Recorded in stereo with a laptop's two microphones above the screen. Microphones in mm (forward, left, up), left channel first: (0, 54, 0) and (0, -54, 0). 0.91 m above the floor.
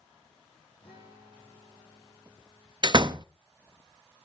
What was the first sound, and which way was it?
A guitar, 55° left (ahead or behind).